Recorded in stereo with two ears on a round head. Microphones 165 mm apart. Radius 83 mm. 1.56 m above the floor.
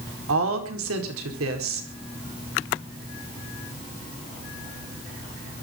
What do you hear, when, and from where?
0.3 s a woman speaking: 90° right, 5 m